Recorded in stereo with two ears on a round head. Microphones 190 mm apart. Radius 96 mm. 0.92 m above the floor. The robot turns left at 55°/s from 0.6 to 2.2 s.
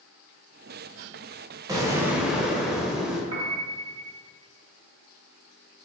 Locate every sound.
1.7 s an explosion: 20° right (ahead or behind), 0.6 m; by 3.2 s 5° right (ahead or behind), 0.6 m
3.3 s a piano: 80° right, 0.7 m